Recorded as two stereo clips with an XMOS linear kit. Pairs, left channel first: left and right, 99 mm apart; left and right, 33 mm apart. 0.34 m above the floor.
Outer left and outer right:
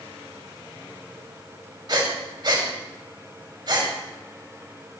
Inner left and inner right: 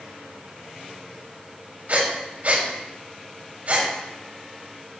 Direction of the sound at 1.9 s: 50° right (ahead or behind).